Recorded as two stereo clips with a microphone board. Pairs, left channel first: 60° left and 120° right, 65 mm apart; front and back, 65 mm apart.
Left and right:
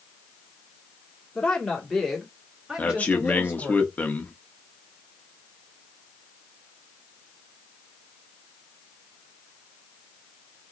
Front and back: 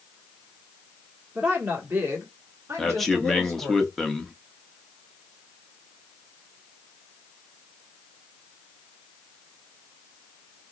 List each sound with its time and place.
1.4 s a woman speaking: 130° left, 1.5 m; by 3.8 s 175° right, 1.9 m
2.8 s a man speaking: 80° left, 0.7 m